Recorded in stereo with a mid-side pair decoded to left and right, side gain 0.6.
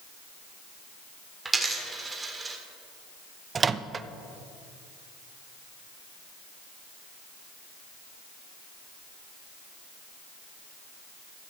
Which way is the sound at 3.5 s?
30° right.